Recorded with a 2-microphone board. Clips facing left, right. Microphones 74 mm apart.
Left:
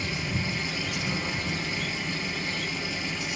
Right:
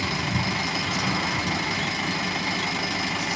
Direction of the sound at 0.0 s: 80° right.